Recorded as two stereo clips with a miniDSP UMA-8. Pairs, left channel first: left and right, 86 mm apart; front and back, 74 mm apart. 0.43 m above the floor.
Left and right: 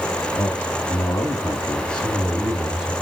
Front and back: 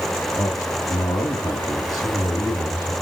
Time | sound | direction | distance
0.4 | a man speaking | 45° left | 2.5 m